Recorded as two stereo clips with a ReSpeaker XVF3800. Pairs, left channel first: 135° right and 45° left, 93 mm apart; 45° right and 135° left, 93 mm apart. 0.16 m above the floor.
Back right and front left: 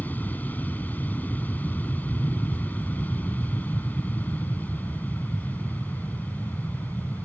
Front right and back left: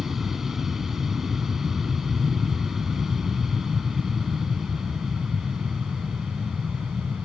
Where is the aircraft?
145° right.